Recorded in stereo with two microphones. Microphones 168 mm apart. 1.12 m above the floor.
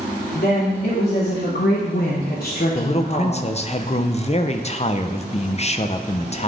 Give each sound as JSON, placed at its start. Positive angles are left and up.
{"t": 0.3, "sound": "a woman speaking", "side_deg": 65, "distance_m": 2.5}
{"t": 2.8, "sound": "a man speaking", "side_deg": 40, "distance_m": 0.5}